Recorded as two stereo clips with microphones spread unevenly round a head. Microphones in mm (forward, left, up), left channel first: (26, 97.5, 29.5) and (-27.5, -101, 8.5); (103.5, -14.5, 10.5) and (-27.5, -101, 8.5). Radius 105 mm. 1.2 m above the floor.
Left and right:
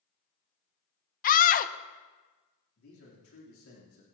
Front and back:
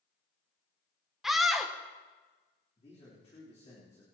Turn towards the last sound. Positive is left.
turn(degrees=95)